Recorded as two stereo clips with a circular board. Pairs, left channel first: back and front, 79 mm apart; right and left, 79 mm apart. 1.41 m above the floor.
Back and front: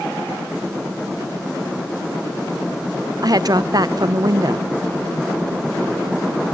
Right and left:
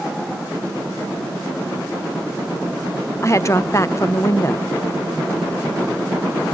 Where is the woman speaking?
35° right, 0.9 m.